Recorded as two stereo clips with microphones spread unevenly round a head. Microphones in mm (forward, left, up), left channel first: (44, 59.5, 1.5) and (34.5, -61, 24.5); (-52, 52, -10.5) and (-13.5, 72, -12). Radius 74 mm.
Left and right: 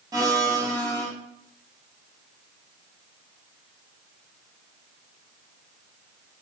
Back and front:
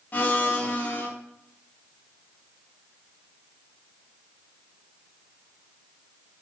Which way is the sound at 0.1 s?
125° right.